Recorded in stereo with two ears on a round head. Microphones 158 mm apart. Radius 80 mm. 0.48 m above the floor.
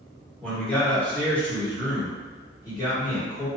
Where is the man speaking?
5° left (ahead or behind), 1.5 m; by 3.5 s 20° left (ahead or behind), 1.4 m.